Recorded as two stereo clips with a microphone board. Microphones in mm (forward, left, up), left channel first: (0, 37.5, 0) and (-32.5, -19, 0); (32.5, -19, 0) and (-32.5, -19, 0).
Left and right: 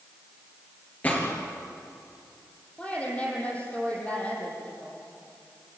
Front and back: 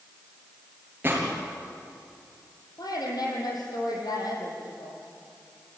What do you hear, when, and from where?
1.0 s a gunshot: 125° left, 4 m
2.8 s a woman speaking: 10° right, 6.5 m